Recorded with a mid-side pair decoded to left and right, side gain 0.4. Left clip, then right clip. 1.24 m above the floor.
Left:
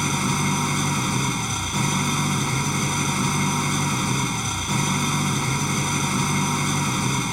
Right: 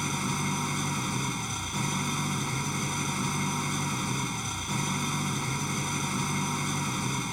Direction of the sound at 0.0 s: 55° left.